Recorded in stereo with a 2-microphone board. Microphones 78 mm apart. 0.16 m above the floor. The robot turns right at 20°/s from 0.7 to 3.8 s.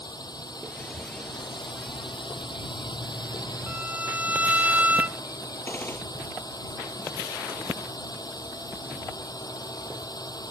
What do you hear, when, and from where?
0.0 s a drone: 60° left; by 10.5 s 120° left
3.7 s a violin: 20° right (ahead or behind)
5.7 s a gunshot: 25° left (ahead or behind)